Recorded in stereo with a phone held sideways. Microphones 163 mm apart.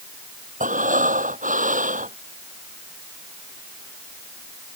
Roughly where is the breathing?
Right.